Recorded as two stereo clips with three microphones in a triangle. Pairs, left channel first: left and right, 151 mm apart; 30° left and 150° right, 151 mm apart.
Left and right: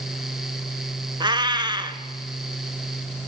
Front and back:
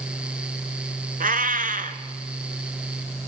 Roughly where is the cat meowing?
Behind right.